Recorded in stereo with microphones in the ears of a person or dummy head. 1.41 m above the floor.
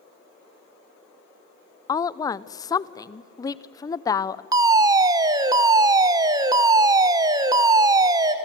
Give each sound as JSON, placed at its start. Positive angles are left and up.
{"t": 1.9, "sound": "a woman speaking", "side_deg": 20, "distance_m": 0.6}
{"t": 4.5, "sound": "a fire alarm", "side_deg": -20, "distance_m": 1.1}